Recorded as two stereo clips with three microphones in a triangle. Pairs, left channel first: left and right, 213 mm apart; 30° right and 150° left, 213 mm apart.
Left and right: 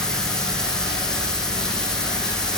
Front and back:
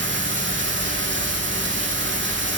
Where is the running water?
175° left, 7 m.